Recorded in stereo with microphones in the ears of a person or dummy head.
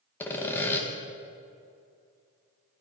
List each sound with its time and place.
0.2 s sawing: 10° left (ahead or behind), 1.1 m